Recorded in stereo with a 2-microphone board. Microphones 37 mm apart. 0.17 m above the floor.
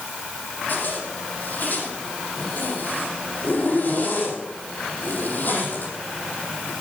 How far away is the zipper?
About 6 m.